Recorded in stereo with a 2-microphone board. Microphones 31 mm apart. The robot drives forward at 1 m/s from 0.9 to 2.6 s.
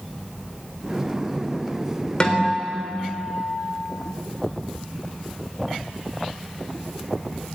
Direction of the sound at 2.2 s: 35° left (ahead or behind).